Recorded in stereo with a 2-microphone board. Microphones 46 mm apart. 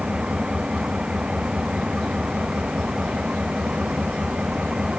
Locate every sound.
0.0 s an engine running: 20° right (ahead or behind)